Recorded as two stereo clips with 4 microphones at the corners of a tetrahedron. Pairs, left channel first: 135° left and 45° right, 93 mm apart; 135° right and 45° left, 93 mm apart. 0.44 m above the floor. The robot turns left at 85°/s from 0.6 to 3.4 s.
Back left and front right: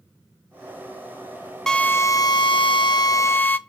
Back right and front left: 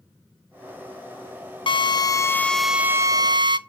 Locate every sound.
1.7 s a drill: 140° right, 0.5 m; by 3.6 s 70° left, 0.5 m